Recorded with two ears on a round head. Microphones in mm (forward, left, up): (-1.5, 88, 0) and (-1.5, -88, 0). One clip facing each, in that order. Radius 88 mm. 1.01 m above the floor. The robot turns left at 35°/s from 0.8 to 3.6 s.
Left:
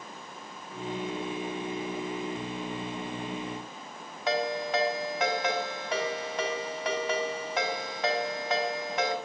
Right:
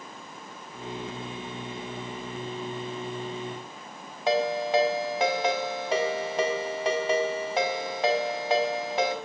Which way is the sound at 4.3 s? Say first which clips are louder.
Right 4 dB; 25° right (ahead or behind).